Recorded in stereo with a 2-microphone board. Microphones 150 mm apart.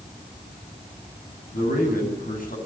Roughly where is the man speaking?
Left.